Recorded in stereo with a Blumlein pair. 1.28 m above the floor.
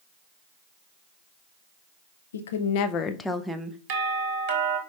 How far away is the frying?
No frying in this recording.